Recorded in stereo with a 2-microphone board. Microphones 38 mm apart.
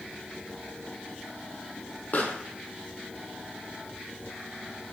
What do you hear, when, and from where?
2.1 s a pop: 50° left (ahead or behind), 1.3 m